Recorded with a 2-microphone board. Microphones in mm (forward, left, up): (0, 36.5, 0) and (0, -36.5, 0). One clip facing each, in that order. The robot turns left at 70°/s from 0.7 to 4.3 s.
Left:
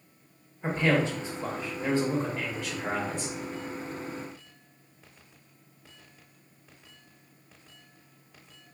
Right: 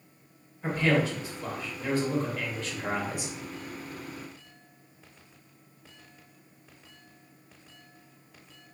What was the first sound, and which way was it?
A man speaking, 140° left.